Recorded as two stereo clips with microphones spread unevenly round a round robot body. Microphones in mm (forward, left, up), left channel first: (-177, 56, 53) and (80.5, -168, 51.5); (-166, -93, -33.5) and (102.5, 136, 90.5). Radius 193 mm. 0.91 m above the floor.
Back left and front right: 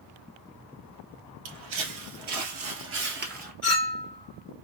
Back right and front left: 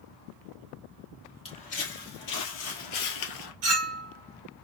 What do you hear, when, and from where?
1.4 s footsteps: 55° right, 1.6 m; by 3.5 s 105° right, 1.2 m
3.6 s a clink: 50° left, 1.3 m